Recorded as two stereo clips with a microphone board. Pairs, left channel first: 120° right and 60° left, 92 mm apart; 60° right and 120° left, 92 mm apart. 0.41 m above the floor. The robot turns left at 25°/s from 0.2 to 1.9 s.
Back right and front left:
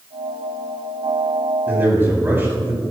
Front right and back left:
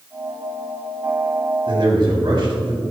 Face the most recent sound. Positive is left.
turn(degrees=125)